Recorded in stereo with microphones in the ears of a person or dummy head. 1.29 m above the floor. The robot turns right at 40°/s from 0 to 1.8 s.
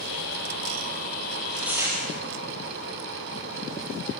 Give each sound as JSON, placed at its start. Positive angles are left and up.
{"t": 1.3, "sound": "tearing paper", "side_deg": 10, "distance_m": 6.0}